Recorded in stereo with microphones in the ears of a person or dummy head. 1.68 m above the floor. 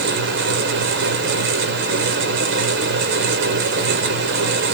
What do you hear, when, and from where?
0.0 s a fan: 75° right (ahead or behind), 0.8 m